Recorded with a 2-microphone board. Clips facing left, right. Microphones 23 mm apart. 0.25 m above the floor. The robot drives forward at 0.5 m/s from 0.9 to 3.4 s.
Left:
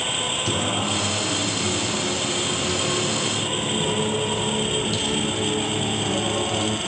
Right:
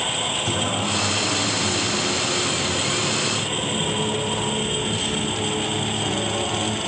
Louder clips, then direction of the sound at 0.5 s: Even; 40° left (ahead or behind).